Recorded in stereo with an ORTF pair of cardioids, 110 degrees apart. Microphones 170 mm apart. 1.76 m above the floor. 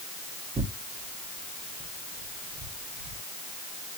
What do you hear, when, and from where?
0.6 s tearing paper: 30° right, 1.6 m